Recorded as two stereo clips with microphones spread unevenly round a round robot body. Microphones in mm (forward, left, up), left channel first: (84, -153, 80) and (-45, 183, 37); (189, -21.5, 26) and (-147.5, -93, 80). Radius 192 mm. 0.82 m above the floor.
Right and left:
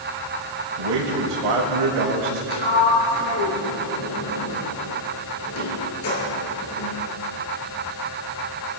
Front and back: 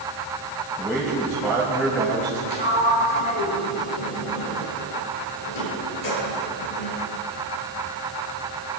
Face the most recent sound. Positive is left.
turn(degrees=-20)